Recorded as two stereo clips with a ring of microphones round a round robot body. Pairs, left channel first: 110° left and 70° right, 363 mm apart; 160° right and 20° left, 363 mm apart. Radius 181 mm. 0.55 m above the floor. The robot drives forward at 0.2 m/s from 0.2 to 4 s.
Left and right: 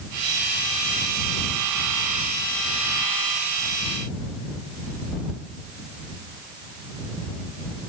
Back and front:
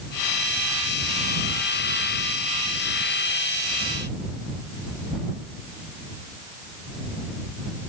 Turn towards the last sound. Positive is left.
No sound to turn to.